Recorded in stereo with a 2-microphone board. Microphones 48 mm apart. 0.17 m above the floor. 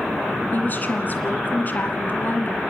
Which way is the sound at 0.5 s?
40° left (ahead or behind).